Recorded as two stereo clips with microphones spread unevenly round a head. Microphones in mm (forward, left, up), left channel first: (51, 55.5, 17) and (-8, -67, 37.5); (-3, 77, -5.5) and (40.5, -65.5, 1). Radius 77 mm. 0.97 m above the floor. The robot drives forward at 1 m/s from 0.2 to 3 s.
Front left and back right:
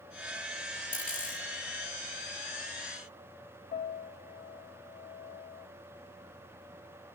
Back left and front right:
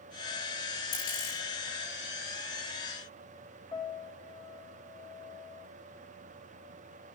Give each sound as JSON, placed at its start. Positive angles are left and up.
{"t": 0.9, "sound": "a dropped coin", "azimuth_deg": 145, "distance_m": 7.5}
{"t": 3.7, "sound": "a piano", "azimuth_deg": 45, "distance_m": 1.6}